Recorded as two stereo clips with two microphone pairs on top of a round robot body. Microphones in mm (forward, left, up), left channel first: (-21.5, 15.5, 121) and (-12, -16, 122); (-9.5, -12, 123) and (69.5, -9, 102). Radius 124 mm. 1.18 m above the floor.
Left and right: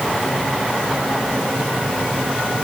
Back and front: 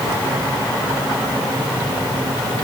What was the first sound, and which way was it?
Only background noise.